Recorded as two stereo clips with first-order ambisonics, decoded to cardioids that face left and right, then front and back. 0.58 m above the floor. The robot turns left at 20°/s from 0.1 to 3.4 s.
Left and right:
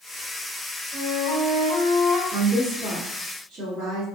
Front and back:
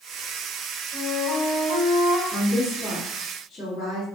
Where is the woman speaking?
25° right, 1.2 m; by 4.0 s 45° right, 1.2 m.